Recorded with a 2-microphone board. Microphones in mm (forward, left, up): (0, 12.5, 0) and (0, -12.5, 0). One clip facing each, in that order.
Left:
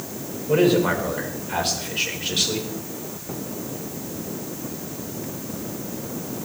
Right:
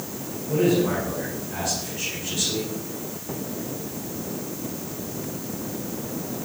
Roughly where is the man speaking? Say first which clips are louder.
Left 3 dB; left.